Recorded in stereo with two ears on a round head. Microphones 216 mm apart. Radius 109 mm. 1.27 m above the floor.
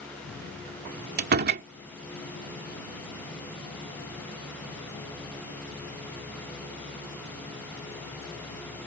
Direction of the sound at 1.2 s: 45° right (ahead or behind).